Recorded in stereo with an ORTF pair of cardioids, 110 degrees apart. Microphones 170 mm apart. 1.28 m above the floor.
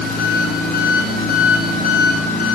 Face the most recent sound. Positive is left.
turn(degrees=65)